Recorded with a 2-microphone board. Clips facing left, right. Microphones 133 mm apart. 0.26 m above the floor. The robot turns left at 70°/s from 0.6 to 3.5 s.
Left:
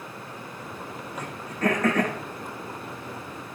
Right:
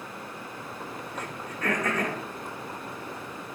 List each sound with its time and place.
1.1 s throat clearing: 10° left (ahead or behind), 9 m; by 2.2 s 80° left, 9 m